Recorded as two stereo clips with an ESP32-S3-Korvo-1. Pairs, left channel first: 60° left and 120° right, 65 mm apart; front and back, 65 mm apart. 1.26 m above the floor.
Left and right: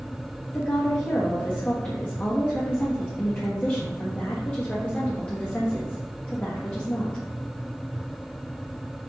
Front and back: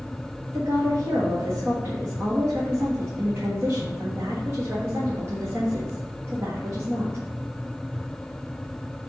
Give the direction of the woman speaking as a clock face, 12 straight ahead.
8 o'clock.